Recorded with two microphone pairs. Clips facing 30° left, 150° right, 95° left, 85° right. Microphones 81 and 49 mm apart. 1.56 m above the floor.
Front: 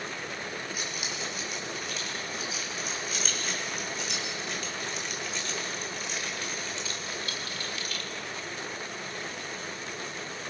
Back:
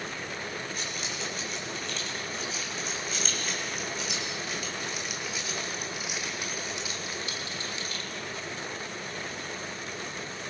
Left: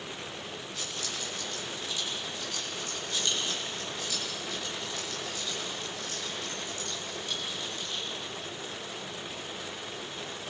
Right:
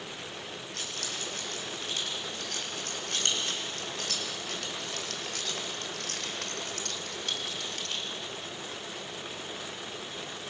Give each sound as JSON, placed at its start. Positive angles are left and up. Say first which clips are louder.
{"t": 0.7, "sound": "keys jangling", "louder": "even, even", "azimuth_deg": -55, "distance_m": 6.5}